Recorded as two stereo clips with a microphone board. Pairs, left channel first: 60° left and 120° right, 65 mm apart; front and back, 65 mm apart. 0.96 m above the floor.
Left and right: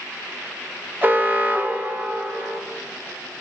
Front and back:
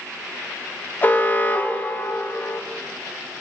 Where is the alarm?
60° right, 0.9 m.